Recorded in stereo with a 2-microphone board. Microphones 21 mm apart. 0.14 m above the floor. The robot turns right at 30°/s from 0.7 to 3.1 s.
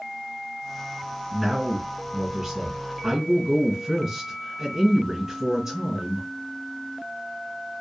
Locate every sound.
1.3 s a man speaking: centre (ahead or behind), 1.7 m; by 6.3 s 15° right (ahead or behind), 1.7 m